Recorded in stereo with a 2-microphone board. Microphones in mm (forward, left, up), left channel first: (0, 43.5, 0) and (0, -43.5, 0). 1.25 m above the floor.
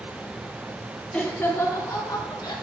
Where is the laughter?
15° left (ahead or behind), 2 m; by 2.5 s 55° left (ahead or behind), 3 m.